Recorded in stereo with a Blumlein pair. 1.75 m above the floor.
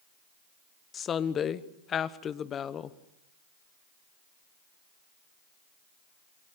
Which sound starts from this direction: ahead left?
A woman speaking, at 0.9 s.